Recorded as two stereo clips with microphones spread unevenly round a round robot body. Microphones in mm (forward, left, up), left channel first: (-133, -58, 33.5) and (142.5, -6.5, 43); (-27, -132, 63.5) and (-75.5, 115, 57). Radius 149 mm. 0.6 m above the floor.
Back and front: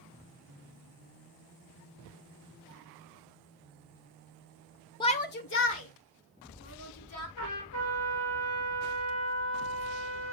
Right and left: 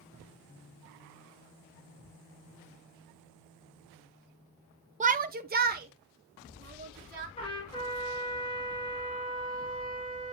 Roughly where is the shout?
Behind left.